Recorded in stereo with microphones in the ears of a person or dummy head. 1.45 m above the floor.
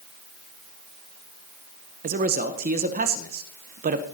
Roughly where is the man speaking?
Right.